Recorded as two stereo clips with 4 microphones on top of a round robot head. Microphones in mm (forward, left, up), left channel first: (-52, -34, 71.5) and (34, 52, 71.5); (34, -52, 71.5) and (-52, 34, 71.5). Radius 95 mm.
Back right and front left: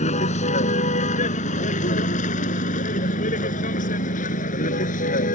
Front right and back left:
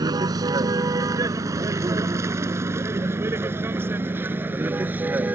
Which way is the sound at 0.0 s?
165° right.